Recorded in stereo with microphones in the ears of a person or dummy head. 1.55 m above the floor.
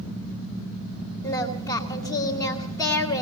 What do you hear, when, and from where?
1.2 s singing: 10° left (ahead or behind), 3 m